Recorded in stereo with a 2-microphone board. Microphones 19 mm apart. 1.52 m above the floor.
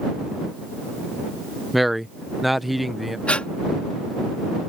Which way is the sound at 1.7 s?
Centre (ahead or behind).